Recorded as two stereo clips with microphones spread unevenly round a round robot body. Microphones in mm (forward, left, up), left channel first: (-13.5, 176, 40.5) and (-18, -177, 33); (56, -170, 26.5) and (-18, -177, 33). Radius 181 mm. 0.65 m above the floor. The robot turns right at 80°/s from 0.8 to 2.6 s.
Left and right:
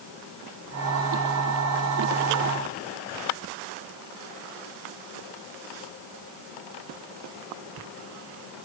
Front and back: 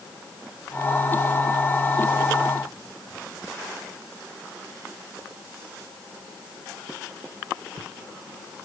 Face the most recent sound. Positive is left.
No sound to turn to.